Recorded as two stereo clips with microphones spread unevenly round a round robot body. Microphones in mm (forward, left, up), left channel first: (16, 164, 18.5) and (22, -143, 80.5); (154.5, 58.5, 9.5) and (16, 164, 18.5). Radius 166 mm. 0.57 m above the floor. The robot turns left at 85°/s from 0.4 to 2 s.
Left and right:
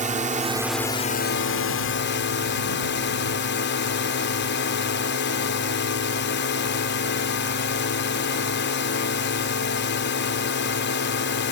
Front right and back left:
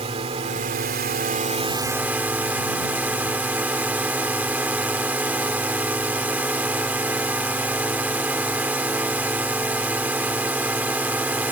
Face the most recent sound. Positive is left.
turn(degrees=65)